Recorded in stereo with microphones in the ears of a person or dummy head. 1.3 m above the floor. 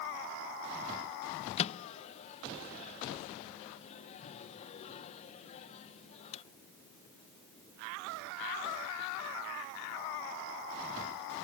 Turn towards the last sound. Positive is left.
turn(degrees=35)  # may be behind; listen again after turning